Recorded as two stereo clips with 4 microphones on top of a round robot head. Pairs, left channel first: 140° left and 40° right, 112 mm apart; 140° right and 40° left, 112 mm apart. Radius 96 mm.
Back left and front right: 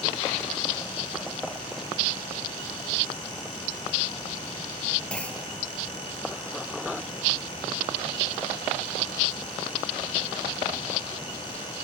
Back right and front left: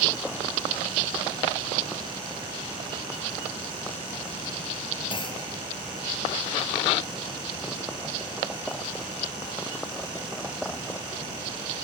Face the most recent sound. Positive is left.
turn(degrees=-145)